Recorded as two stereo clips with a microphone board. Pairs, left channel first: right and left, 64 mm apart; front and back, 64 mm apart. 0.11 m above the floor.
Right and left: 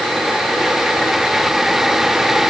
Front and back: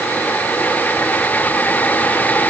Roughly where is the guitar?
I don't hear a guitar.